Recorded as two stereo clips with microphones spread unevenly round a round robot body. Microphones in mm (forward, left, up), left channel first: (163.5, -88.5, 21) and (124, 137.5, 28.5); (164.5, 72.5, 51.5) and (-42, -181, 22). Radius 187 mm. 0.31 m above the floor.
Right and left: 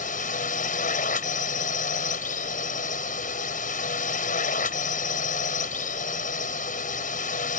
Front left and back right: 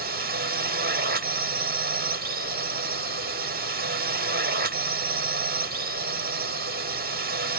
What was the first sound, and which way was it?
A drone, 105° right.